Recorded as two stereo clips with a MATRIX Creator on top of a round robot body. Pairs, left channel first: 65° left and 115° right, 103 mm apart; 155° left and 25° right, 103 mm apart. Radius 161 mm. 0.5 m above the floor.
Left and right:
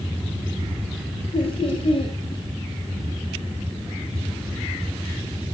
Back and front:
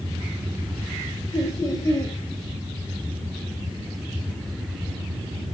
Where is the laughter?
100° left, 4.5 m.